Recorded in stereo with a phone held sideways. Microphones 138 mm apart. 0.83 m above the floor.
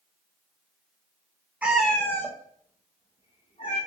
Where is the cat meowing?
10° right (ahead or behind), 0.6 m; by 3.8 s 40° left (ahead or behind), 1.7 m.